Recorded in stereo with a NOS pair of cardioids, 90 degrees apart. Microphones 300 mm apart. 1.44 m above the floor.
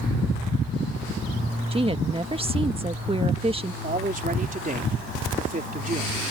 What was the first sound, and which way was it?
A woman speaking, 20° right.